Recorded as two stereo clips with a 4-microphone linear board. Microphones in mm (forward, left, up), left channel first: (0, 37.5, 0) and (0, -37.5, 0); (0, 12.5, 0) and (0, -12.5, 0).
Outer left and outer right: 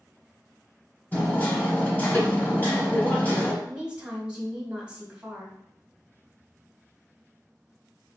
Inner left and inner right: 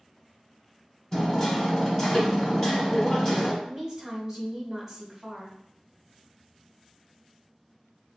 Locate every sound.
1.1 s hammering: 20° left (ahead or behind), 1.5 m
3.6 s a woman speaking: 15° right (ahead or behind), 1.7 m